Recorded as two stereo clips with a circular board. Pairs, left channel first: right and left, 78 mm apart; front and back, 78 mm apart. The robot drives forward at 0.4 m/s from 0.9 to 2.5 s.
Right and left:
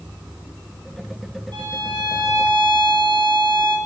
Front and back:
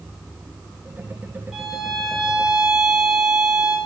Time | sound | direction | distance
1.5 | a violin | 95° left | 6 m